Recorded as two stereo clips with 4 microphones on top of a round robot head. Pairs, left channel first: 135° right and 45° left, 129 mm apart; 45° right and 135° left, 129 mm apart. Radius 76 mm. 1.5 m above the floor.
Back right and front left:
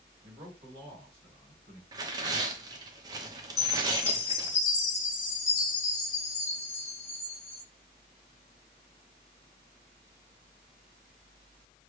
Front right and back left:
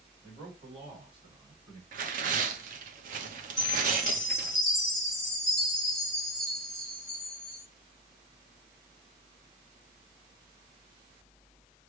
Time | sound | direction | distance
0.2 | a man speaking | 90° left | 3 m
1.9 | tearing paper | 105° left | 0.8 m
3.6 | a chime | 130° right | 1.1 m